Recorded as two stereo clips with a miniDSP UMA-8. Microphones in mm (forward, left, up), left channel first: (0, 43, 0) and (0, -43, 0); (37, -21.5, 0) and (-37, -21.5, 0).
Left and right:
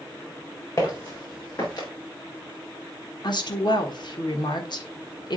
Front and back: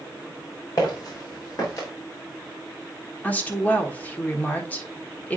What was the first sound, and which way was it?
Footsteps, 40° left.